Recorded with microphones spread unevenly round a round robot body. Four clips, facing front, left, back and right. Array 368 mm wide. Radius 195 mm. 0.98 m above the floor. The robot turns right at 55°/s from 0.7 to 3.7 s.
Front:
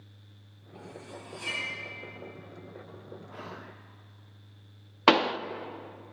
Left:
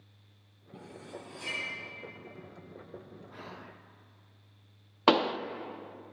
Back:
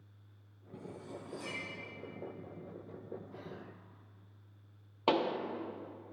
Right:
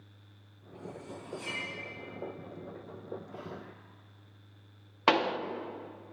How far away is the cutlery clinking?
About 4 m.